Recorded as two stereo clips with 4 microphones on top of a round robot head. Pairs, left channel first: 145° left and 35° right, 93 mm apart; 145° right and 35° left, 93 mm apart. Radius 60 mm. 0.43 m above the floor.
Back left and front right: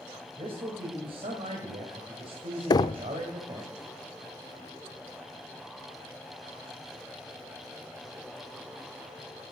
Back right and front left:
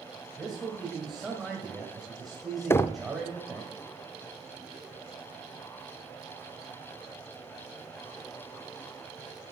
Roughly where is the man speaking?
Ahead right.